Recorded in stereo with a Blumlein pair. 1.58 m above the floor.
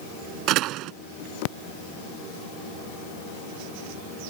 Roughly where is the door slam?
Ahead right.